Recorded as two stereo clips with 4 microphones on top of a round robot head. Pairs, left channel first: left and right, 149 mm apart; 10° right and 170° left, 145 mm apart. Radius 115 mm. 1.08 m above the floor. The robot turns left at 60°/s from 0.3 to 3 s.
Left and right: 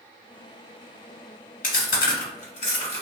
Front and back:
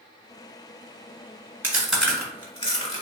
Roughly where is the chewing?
Left.